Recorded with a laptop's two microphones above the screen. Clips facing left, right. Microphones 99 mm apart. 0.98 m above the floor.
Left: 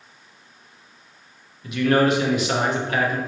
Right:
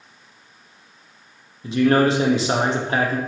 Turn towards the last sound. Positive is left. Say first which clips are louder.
# right 2 dB
turn(degrees=-30)  # may be behind; listen again after turning